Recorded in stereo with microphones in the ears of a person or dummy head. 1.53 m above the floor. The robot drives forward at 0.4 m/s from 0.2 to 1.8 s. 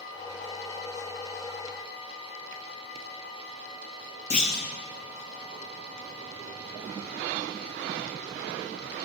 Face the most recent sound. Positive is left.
turn(degrees=35)  # may be behind; listen again after turning